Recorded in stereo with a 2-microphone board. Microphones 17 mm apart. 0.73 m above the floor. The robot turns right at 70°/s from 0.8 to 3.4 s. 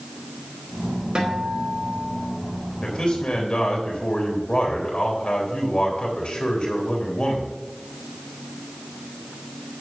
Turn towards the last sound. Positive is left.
turn(degrees=95)